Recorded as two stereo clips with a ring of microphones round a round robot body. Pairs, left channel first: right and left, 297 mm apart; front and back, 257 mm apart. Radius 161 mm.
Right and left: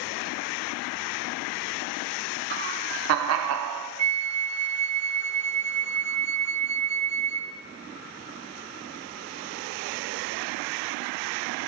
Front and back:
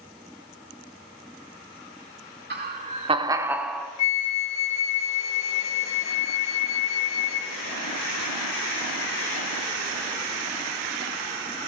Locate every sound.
2.5 s laughter: 140° left, 1.6 m; by 3.9 s 85° left, 1.6 m
4.0 s a flute: 20° left, 1.5 m